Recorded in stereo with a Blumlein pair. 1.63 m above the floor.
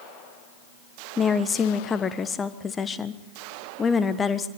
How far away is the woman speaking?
About 1.2 m.